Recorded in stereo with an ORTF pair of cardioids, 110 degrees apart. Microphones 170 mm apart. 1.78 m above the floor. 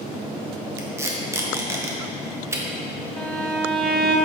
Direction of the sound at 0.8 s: 15° right.